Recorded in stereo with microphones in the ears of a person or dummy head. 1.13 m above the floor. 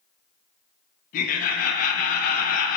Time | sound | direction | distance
1.1 | laughter | 45° left (ahead or behind) | 0.5 m